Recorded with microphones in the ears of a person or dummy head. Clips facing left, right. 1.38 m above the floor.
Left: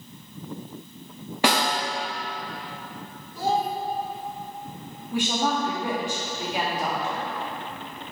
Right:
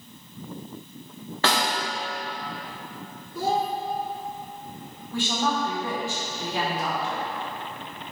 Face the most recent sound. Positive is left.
turn(degrees=15)  # may be behind; listen again after turning